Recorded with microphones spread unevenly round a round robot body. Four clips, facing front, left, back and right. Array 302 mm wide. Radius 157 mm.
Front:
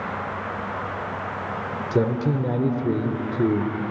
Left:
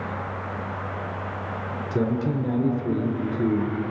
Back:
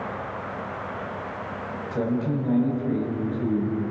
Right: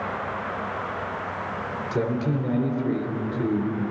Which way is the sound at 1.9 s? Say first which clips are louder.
Left 1 dB, front 3 dB; 15° left.